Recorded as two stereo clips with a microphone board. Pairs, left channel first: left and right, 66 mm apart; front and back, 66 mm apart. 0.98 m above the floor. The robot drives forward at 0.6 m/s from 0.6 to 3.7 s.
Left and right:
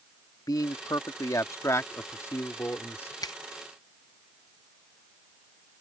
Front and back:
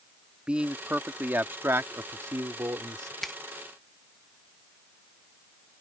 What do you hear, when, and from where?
0.5 s a man speaking: 105° left; by 3.1 s 145° left
3.2 s a finger snap: 85° left; by 3.4 s 95° left